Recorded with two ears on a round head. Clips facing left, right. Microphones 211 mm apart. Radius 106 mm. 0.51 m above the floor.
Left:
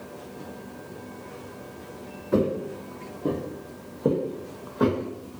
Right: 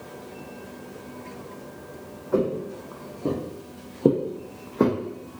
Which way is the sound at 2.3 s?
35° left (ahead or behind).